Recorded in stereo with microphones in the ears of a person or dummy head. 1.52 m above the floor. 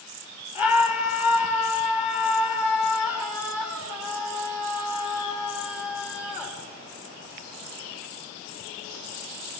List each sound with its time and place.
0.6 s a scream: 5° right (ahead or behind), 3 m